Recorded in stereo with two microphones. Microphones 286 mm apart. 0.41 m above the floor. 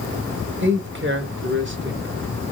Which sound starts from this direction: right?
A man speaking, at 0.6 s.